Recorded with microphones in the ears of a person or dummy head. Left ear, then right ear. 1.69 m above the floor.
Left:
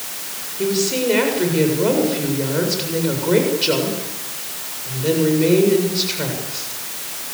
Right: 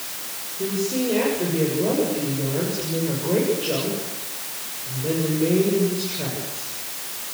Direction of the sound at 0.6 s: 60° left (ahead or behind).